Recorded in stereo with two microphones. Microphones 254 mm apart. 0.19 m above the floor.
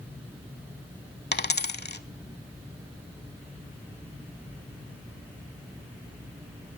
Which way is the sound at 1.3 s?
40° left (ahead or behind).